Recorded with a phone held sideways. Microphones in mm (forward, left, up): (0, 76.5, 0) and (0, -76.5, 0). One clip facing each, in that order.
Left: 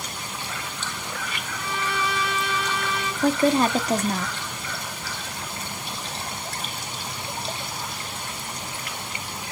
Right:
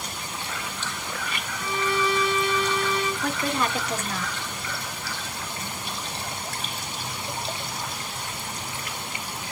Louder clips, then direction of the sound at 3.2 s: Left 7 dB; 35° left (ahead or behind).